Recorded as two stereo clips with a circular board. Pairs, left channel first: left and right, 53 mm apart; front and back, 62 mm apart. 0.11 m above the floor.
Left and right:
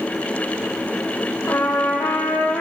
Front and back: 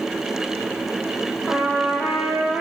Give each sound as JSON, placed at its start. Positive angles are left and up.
{"t": 1.5, "sound": "a trumpet", "azimuth_deg": 75, "distance_m": 3.5}